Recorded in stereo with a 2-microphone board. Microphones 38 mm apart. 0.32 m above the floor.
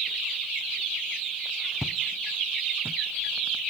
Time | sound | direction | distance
1.8 | footsteps | 10° right (ahead or behind) | ?